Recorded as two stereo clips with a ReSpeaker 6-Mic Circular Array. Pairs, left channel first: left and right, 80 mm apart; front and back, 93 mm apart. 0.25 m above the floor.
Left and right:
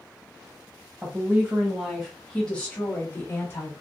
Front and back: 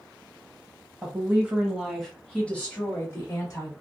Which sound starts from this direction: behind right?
A woman speaking, at 1.0 s.